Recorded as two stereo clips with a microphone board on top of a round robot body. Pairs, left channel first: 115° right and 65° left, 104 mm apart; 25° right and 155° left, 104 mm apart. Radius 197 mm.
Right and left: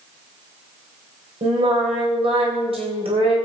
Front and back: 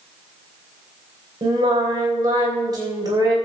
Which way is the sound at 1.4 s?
100° left.